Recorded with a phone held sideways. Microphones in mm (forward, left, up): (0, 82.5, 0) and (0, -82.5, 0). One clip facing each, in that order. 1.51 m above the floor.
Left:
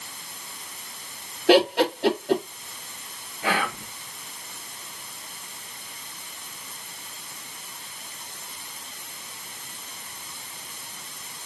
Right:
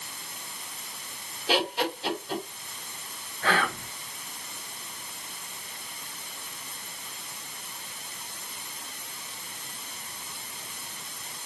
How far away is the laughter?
About 1.3 m.